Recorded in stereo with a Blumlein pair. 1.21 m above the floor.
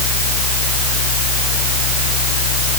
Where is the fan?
55° left.